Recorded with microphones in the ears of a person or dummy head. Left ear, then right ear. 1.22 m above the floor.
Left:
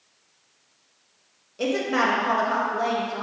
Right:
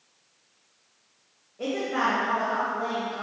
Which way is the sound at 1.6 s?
85° left.